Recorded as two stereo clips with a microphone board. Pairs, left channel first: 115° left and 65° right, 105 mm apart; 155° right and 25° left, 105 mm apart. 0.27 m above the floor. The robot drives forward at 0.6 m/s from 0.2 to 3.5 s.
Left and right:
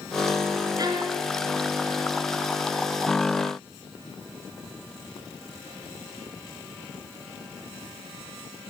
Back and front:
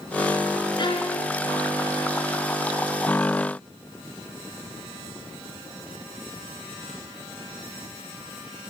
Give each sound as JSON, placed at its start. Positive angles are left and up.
{"t": 0.8, "sound": "a violin", "azimuth_deg": -115, "distance_m": 3.5}